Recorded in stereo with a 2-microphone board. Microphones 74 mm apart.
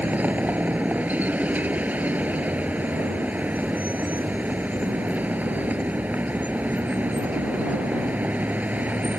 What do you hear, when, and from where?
0.0 s a vehicle: 20° right (ahead or behind)